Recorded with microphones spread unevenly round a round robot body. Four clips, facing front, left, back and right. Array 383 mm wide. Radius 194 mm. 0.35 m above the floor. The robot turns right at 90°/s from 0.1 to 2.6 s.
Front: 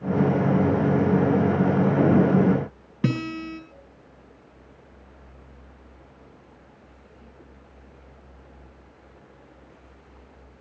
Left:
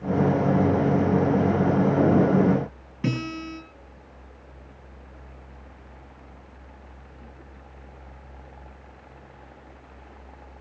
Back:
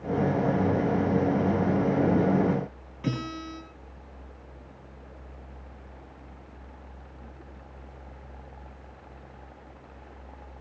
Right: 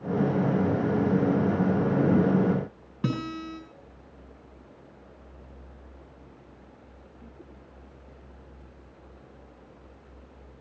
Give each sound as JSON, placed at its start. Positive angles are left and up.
{"t": 3.0, "sound": "a guitar", "azimuth_deg": -5, "distance_m": 6.0}